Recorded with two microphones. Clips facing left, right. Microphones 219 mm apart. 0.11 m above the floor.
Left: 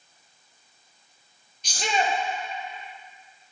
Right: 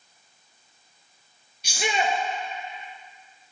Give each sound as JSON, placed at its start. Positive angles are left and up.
{"t": 1.6, "sound": "a shout", "side_deg": -10, "distance_m": 2.5}